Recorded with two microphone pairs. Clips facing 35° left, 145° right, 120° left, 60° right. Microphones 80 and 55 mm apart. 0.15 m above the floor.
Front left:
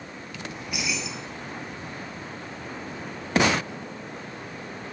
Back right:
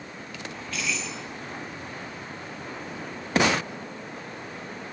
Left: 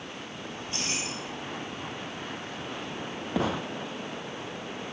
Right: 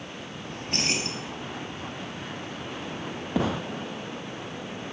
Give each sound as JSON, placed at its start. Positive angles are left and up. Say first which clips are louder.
{"t": 0.5, "sound": "keys jangling", "louder": "even, right 6 dB", "azimuth_deg": -40, "distance_m": 1.9}